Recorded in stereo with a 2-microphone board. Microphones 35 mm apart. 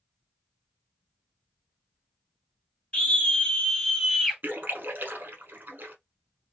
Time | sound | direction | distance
2.9 | a scream | 30° left (ahead or behind) | 1.7 m
4.4 | a splash | 65° right (ahead or behind) | 0.9 m